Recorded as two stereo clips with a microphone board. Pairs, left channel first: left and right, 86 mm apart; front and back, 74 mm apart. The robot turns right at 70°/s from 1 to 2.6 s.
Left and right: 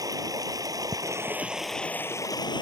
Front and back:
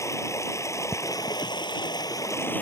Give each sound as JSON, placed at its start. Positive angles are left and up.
{"t": 0.0, "sound": "running water", "azimuth_deg": -45}